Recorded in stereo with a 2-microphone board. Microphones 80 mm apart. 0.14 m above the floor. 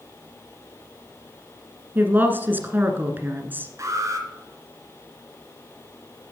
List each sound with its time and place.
1.9 s a woman speaking: 25° right (ahead or behind), 1.6 m
3.8 s an alarm: 40° right (ahead or behind), 3 m